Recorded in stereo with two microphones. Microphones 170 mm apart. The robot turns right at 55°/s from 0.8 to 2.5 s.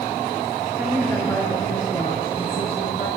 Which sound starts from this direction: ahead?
A woman speaking, at 0.8 s.